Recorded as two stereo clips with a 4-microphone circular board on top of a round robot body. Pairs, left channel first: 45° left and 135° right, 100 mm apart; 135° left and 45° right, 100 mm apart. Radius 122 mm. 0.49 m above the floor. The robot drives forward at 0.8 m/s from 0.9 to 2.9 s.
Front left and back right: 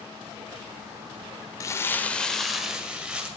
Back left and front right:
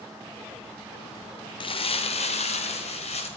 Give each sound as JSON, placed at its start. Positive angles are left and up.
{"t": 1.6, "sound": "crumpling", "azimuth_deg": 100, "distance_m": 1.0}